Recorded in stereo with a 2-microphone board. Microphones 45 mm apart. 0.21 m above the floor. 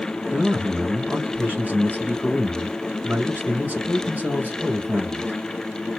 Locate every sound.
0.3 s a man speaking: 40° right (ahead or behind), 2.0 m